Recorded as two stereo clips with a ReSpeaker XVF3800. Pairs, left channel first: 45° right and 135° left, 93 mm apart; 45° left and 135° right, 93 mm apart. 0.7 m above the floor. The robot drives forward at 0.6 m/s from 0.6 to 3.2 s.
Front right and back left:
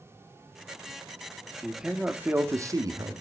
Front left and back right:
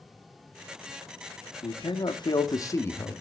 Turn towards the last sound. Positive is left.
turn(degrees=115)